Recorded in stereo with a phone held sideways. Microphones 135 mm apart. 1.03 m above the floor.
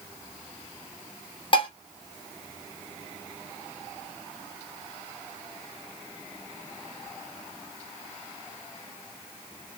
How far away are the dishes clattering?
About 1.0 m.